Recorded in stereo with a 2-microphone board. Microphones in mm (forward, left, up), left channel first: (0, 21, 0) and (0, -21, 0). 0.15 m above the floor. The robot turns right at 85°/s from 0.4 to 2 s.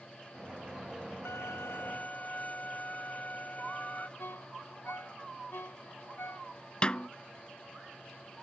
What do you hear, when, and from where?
1.2 s a violin: 70° left; by 4.1 s 135° left
4.2 s a ringtone: 65° left (ahead or behind)
6.8 s a snare drum: 30° left (ahead or behind)